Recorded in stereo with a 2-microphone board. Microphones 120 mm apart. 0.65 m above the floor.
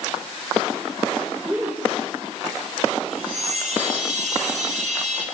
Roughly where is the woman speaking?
Centre.